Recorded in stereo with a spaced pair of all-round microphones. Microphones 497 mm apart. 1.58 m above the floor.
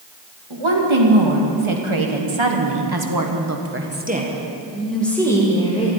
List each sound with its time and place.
0.5 s a woman speaking: 75° right (ahead or behind), 2.5 m; by 5.9 s 10° left (ahead or behind), 2.5 m